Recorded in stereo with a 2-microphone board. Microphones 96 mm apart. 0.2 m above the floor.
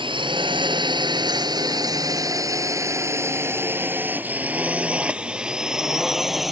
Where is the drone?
60° right (ahead or behind); by 6.5 s centre (ahead or behind).